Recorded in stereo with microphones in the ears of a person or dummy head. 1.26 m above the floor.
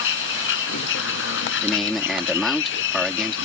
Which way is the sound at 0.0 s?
75° left (ahead or behind).